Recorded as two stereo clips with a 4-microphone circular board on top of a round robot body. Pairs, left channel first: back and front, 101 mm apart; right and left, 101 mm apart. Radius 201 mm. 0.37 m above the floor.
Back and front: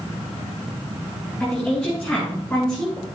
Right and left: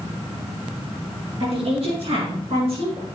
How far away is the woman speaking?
About 4.5 m.